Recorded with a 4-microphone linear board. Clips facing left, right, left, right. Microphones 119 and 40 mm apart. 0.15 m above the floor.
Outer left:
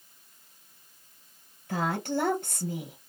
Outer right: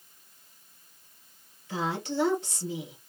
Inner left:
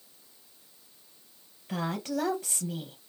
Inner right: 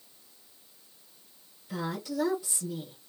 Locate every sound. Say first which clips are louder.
1.7 s a woman speaking: outer left 2 dB, inner left 2 dB; 55° left (ahead or behind), 2.5 m